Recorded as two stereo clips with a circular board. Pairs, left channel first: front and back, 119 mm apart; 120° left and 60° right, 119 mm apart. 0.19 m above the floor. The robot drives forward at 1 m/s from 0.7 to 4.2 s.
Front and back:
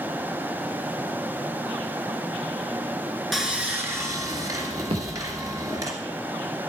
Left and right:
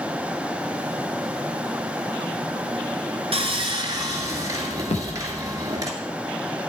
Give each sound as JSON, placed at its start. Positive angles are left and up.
{"t": 3.3, "sound": "sawing", "azimuth_deg": -90, "distance_m": 1.7}
{"t": 4.9, "sound": "a thud", "azimuth_deg": 145, "distance_m": 3.0}